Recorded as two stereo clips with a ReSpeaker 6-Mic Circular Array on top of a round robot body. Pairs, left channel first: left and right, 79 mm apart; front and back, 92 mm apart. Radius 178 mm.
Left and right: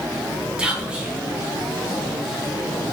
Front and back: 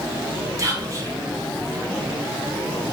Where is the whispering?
160° right, 1.1 m.